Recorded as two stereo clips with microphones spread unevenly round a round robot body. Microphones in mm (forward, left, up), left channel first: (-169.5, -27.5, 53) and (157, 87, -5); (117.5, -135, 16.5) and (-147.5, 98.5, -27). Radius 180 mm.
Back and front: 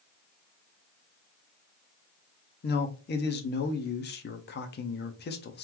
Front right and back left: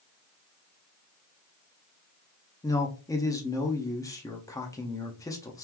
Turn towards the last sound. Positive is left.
turn(degrees=-125)